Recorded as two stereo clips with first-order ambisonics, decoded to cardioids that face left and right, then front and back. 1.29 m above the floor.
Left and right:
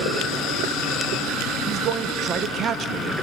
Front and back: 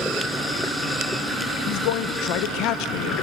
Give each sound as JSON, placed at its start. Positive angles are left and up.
{"t": 1.7, "sound": "a man speaking", "azimuth_deg": -30, "distance_m": 0.9}